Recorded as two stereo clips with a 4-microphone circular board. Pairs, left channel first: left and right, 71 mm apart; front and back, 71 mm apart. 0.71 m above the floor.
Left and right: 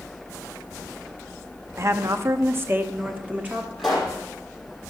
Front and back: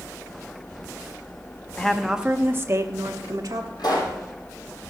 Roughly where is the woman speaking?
Right.